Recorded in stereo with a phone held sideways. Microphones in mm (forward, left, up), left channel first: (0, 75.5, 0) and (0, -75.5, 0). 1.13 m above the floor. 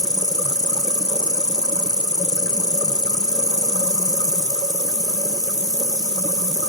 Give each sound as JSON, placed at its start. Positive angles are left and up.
{"t": 0.0, "sound": "an insect", "side_deg": 25, "distance_m": 1.2}